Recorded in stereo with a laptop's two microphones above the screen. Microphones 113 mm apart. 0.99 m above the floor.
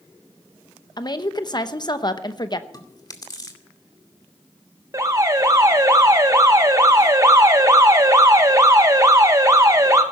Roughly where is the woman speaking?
Left.